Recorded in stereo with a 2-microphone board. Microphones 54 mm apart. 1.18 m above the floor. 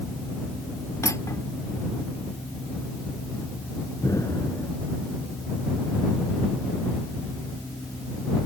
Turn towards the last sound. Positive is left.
turn(degrees=80)